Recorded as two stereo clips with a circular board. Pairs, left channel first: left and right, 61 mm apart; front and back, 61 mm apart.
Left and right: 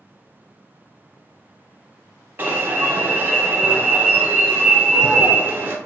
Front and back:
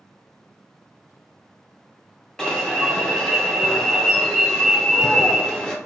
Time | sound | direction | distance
2.4 | an alarm | 70° right | 0.9 m